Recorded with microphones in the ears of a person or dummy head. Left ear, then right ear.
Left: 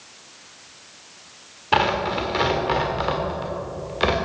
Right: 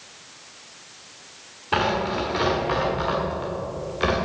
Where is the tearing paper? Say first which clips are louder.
Left 3 dB; 15° left (ahead or behind), 1.4 m.